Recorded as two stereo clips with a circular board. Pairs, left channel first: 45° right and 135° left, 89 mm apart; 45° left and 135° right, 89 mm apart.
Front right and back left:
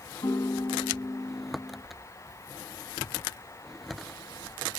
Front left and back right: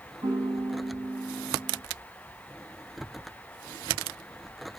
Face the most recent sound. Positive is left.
turn(degrees=-90)